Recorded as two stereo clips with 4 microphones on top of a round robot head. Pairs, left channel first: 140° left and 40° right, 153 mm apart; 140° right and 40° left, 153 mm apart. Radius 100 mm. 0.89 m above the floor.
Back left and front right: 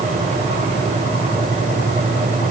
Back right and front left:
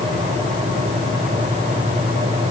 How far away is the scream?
I don't hear a scream.